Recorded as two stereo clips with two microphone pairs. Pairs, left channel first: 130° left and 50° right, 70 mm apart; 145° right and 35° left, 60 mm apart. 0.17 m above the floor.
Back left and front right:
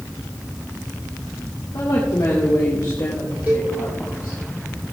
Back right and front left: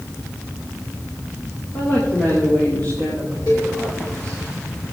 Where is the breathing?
I don't hear breathing.